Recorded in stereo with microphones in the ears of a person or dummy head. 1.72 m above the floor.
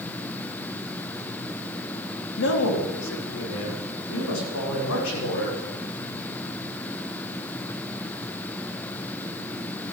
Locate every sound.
2.4 s a man speaking: 75° left (ahead or behind), 3.5 m